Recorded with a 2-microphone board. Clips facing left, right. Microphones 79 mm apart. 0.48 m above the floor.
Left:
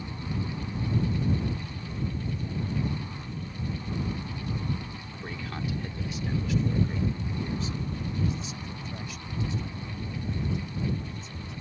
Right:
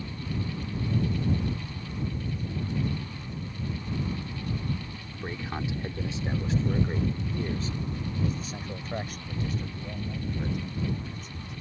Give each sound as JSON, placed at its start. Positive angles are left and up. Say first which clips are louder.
{"t": 5.1, "sound": "a man speaking", "louder": "right 3 dB", "side_deg": -15}